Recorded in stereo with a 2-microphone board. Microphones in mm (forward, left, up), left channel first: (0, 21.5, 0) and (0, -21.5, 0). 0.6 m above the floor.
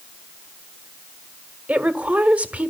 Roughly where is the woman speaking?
Right.